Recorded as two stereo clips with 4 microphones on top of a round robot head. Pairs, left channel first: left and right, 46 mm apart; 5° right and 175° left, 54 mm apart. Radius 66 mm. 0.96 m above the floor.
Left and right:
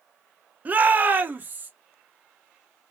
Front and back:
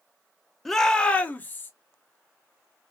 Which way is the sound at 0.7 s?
90° right.